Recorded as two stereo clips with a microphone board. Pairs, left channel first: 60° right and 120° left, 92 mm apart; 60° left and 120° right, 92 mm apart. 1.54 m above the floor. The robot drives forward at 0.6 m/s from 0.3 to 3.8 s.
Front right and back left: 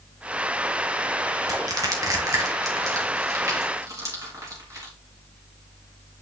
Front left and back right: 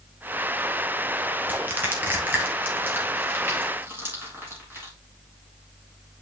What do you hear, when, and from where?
1.5 s crushing: 170° left, 1.4 m; by 4.9 s 175° left, 3 m